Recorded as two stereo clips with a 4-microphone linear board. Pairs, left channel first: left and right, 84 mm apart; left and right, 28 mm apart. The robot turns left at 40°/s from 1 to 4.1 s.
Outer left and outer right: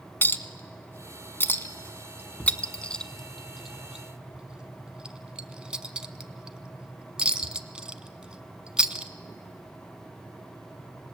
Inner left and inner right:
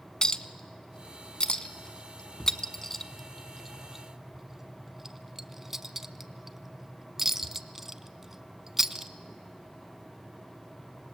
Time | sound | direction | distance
0.2 | a clink | 30° left (ahead or behind) | 0.6 m